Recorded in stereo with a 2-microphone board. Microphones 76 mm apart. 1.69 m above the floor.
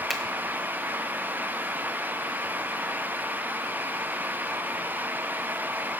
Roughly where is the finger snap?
Centre.